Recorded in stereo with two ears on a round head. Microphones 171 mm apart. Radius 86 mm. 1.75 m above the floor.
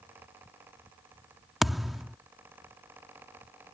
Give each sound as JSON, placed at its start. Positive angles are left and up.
{"t": 1.6, "sound": "a thud", "side_deg": 0}